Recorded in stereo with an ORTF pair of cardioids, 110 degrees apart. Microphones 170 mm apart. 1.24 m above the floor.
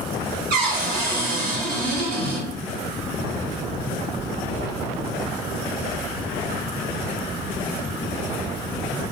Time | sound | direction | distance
0.5 | a cupboard door | 65° right | 1.4 m